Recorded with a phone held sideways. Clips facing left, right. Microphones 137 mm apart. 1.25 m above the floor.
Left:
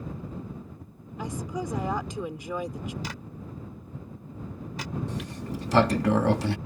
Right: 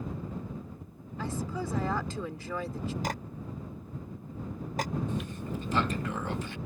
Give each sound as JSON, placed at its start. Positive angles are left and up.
{"t": 1.2, "sound": "a woman speaking", "side_deg": 15}
{"t": 3.0, "sound": "a clap", "side_deg": -50}
{"t": 5.1, "sound": "a sliding door", "side_deg": 85}